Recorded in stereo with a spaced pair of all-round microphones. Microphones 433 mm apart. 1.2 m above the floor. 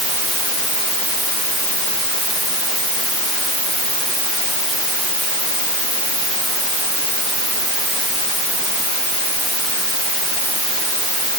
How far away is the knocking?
I don't hear knocking.